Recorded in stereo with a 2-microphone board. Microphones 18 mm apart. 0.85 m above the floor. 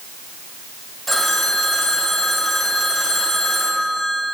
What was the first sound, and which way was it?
A phone ringing, 10° left (ahead or behind).